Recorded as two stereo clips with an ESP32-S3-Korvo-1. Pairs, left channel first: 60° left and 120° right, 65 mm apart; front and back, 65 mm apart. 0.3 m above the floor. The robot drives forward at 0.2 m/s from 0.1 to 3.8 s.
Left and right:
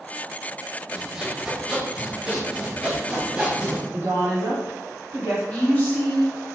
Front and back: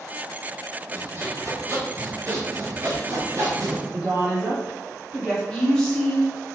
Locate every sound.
0.9 s sawing: 160° left, 0.6 m; by 3.8 s 175° left, 1.0 m
3.9 s a woman speaking: 100° right, 1.5 m
5.5 s a woman speaking: 65° left, 0.9 m